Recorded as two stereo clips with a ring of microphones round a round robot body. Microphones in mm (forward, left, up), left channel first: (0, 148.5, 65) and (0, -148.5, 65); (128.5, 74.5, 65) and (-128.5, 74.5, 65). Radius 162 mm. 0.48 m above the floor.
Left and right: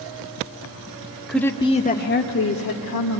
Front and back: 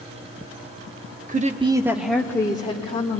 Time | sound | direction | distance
1.3 | a woman speaking | straight behind | 1.1 m